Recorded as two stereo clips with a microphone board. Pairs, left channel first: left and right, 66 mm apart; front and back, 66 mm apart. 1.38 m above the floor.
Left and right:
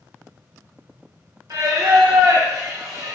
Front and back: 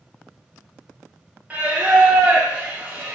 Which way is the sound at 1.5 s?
115° right.